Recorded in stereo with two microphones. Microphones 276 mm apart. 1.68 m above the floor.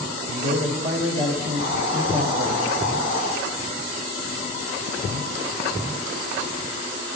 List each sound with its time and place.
0.3 s a man speaking: 60° right (ahead or behind), 2.5 m
1.6 s a hiss: 25° right (ahead or behind), 7 m